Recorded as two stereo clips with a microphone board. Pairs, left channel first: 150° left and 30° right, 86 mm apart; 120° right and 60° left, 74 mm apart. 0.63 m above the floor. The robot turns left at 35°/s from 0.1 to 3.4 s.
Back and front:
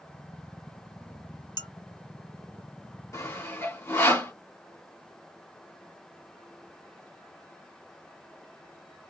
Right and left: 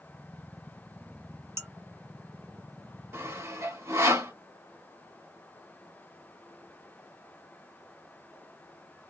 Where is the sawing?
105° left, 1.9 m; by 4.3 s 95° left, 1.9 m.